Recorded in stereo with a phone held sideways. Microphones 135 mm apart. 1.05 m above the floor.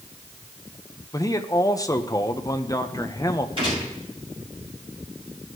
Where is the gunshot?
40° right (ahead or behind), 6.5 m.